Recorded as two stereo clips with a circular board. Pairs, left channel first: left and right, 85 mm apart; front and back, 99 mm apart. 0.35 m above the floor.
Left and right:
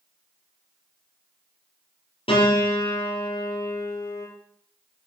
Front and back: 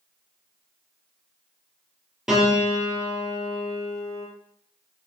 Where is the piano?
95° left, 3.5 m.